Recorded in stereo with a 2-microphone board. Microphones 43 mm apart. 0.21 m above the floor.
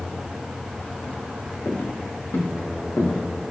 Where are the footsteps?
60° left (ahead or behind), 3 m; by 3.2 s 85° left, 3.5 m.